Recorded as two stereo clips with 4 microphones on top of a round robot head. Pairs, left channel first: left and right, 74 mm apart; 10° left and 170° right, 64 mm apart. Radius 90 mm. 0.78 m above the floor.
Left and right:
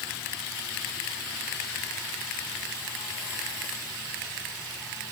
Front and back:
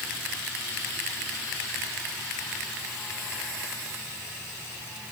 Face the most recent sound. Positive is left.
No sound to turn to.